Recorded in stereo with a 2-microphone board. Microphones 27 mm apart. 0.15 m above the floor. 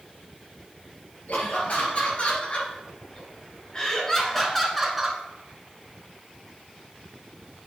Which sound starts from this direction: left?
Laughter, at 1.3 s.